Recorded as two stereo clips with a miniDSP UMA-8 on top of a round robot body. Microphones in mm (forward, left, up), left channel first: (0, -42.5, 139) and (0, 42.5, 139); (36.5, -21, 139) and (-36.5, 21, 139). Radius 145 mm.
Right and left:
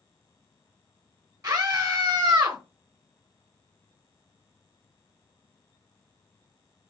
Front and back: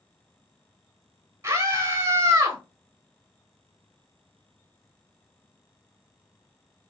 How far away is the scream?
About 1.2 m.